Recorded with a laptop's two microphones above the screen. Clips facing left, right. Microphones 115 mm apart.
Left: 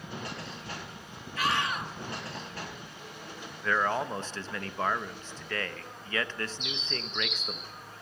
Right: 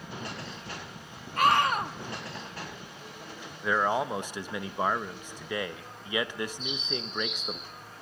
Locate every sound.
1.4 s a scream: 50° right (ahead or behind), 1.4 m
3.6 s a man speaking: 15° right (ahead or behind), 0.8 m
6.6 s a bird: 85° left, 7.5 m